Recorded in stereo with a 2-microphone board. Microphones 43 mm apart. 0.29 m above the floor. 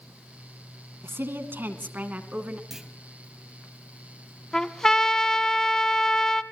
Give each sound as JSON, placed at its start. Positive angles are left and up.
{"t": 1.0, "sound": "a woman speaking", "side_deg": -65, "distance_m": 2.5}
{"t": 2.7, "sound": "a clunk", "side_deg": -10, "distance_m": 2.5}
{"t": 4.5, "sound": "a trumpet", "side_deg": 15, "distance_m": 0.8}